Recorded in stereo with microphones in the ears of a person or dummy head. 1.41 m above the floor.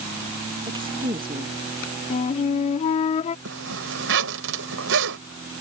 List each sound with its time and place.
0.7 s a woman speaking: 20° right (ahead or behind)
2.1 s a flute: 35° left (ahead or behind)
3.5 s a zipper: 65° right (ahead or behind)